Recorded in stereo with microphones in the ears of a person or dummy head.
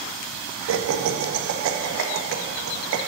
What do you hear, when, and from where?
0.7 s laughter: 75° right (ahead or behind), 1.2 m